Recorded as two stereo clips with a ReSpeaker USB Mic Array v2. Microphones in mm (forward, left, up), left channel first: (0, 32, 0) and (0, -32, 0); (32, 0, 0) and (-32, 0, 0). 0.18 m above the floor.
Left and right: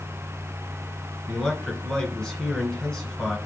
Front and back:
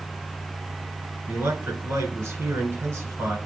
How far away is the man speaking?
About 1.5 m.